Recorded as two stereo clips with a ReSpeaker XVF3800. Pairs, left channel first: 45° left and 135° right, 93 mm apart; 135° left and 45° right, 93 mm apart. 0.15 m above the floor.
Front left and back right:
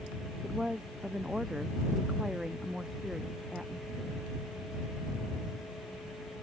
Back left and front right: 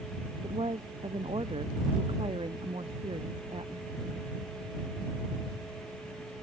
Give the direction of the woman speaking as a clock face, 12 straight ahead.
2 o'clock.